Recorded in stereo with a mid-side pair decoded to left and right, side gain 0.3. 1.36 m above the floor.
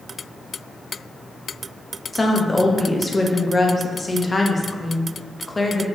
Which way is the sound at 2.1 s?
30° left.